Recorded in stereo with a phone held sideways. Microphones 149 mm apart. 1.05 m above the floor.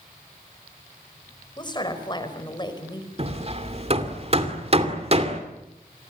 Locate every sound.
1.6 s a woman speaking: 30° left (ahead or behind), 5 m
3.2 s hammering: 45° right (ahead or behind), 2.5 m